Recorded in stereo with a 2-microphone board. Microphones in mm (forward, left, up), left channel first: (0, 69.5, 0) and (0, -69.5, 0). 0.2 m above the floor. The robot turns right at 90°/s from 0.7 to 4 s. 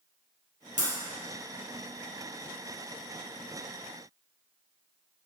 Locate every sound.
0.8 s breaking glass: 65° right (ahead or behind), 2.5 m; by 0.9 s 50° right (ahead or behind), 2.5 m